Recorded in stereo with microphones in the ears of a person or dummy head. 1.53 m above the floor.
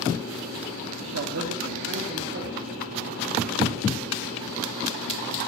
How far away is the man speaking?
About 0.5 m.